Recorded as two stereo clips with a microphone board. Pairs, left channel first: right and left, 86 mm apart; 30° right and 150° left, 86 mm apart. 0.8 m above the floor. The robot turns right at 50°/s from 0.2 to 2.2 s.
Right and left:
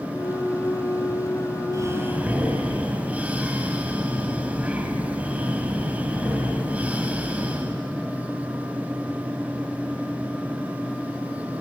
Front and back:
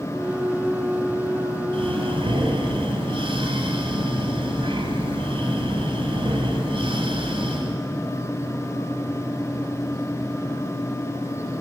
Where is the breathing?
140° left, 2.5 m; by 7.8 s 165° left, 2.5 m.